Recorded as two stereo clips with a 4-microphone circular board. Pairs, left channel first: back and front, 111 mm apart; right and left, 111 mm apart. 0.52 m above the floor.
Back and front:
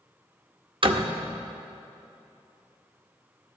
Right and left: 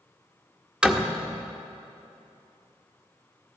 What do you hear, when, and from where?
0.8 s a door slam: 15° left, 0.6 m